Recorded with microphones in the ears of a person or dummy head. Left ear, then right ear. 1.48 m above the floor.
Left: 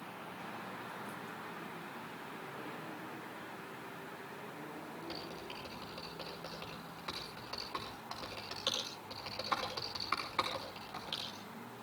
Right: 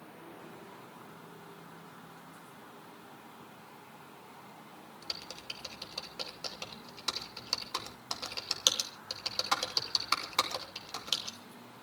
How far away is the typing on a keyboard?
About 3 m.